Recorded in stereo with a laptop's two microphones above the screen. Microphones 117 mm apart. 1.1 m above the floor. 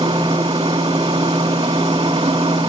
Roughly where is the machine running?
Right.